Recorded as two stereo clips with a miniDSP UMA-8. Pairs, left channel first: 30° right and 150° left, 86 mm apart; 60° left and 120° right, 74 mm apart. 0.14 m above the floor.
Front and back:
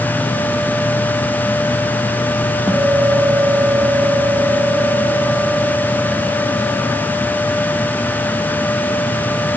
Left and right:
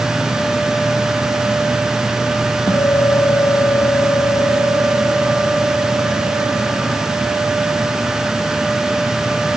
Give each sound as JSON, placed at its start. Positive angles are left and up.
{"t": 2.7, "sound": "a guitar", "azimuth_deg": 80, "distance_m": 2.0}